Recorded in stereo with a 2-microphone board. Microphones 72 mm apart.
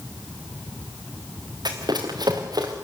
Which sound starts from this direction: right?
Running footsteps, at 1.6 s.